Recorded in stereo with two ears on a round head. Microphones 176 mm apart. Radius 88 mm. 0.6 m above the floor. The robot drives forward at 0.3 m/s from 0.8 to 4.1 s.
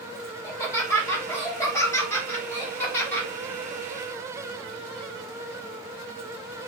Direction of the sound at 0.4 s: 15° left (ahead or behind).